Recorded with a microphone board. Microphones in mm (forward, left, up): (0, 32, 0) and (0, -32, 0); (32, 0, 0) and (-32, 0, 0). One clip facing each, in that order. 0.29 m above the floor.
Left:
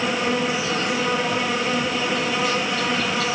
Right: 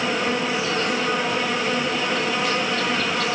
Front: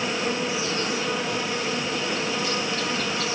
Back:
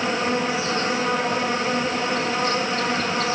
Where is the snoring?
No snoring in this recording.